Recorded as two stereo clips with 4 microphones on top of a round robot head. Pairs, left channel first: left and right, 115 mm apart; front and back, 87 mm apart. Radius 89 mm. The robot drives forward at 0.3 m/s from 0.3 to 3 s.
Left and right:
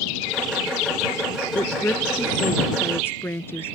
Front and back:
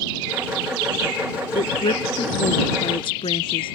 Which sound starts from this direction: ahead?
A woman speaking, at 1.6 s.